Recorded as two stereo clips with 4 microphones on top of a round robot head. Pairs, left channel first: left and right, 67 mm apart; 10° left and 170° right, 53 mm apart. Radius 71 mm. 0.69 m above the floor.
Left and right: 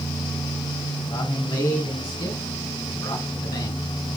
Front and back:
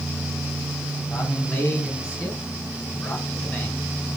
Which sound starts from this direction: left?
A man speaking, at 1.1 s.